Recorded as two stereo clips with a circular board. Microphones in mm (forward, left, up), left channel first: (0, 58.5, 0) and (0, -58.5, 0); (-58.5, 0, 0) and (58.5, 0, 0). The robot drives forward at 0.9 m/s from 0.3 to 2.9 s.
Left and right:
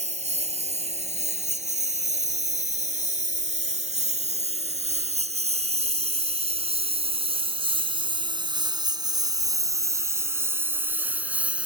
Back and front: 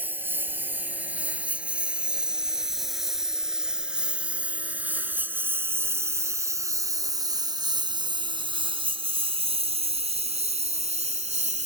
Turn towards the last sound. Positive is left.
turn(degrees=-10)